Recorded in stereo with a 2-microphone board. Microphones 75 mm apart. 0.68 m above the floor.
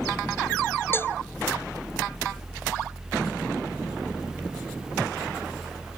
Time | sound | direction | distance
0.9 | a cowbell | 30° left (ahead or behind) | ?